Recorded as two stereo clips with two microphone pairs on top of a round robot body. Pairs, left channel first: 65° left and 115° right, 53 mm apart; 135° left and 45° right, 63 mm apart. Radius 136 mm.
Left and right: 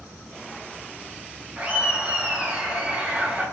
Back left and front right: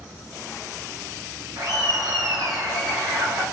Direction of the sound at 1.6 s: 50° right.